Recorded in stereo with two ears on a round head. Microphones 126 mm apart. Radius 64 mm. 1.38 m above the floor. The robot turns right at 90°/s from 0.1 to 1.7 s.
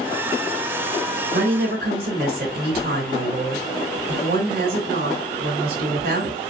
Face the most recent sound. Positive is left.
turn(degrees=-70)